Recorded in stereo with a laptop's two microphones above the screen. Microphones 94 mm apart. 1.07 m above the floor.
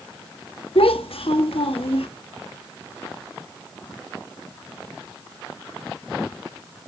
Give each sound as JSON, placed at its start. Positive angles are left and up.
{"t": 0.8, "sound": "a child speaking", "side_deg": 75, "distance_m": 1.2}